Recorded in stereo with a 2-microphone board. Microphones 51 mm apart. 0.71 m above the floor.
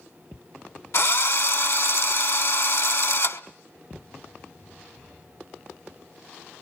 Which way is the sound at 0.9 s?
70° left (ahead or behind).